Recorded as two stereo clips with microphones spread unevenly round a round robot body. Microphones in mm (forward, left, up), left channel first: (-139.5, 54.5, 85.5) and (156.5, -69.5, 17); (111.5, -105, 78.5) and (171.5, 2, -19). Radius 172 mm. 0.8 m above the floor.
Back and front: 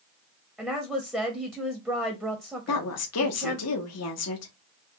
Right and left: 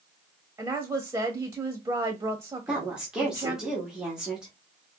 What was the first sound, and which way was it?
A woman speaking, 60° left.